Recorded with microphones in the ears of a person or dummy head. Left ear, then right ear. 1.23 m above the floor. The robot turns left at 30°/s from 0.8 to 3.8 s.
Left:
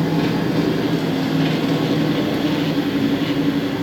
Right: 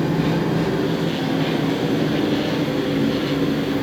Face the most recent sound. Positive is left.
turn(degrees=-10)